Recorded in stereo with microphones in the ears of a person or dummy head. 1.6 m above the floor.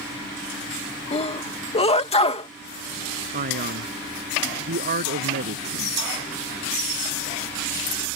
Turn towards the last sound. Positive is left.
turn(degrees=-45)  # may be behind; listen again after turning